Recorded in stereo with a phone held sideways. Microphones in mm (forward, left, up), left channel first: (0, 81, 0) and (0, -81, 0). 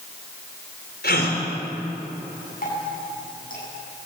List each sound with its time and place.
1.0 s a gasp: 80° left, 4.5 m
2.6 s dripping: 60° left (ahead or behind), 8.5 m